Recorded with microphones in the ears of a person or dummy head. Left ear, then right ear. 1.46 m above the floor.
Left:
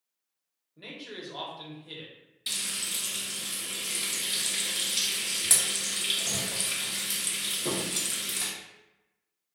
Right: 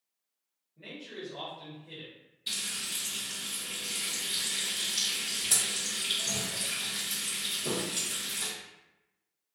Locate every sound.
0.8 s a man speaking: 55° left (ahead or behind), 0.9 m
2.5 s frying: 30° left (ahead or behind), 0.8 m